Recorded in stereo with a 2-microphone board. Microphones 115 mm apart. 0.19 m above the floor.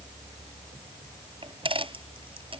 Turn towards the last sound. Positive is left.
turn(degrees=-50)  # may be behind; listen again after turning